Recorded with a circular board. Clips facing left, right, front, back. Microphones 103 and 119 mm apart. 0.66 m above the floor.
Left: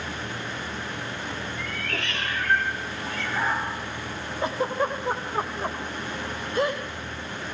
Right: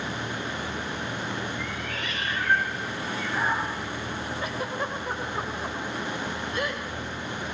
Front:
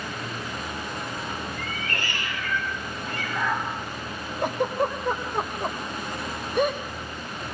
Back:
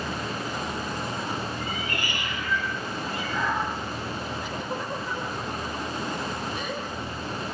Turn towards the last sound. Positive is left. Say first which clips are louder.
# left 8 dB, front 7 dB
turn(degrees=35)